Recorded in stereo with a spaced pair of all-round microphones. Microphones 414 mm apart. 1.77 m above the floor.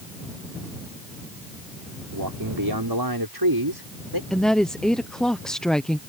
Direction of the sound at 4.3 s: Centre (ahead or behind).